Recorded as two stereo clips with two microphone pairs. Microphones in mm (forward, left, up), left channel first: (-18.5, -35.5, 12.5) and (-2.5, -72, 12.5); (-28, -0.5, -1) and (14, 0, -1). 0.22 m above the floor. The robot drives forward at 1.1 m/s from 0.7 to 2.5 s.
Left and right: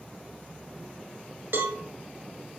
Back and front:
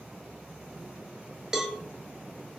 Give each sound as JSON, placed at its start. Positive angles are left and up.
{"t": 1.5, "sound": "a cowbell", "azimuth_deg": -75, "distance_m": 1.6}